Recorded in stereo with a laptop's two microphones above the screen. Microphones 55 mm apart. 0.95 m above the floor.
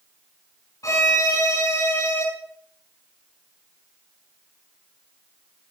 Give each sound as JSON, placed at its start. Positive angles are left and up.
{"t": 0.8, "sound": "a violin", "side_deg": 65, "distance_m": 4.5}